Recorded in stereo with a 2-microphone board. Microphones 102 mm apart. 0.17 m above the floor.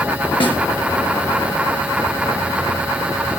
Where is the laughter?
I don't hear laughter.